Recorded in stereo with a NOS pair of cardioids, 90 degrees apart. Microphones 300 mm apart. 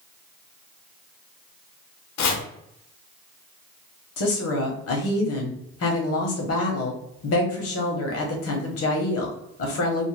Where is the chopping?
70° left, 0.8 m.